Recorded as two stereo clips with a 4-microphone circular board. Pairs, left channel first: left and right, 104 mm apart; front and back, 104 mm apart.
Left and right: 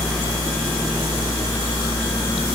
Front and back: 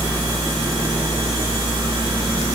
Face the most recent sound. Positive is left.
No sound to turn to.